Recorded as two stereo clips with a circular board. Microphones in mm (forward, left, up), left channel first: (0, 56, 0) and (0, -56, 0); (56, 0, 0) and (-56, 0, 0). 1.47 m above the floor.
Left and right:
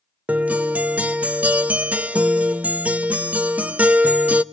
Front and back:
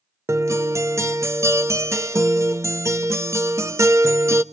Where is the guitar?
155° right, 0.7 m.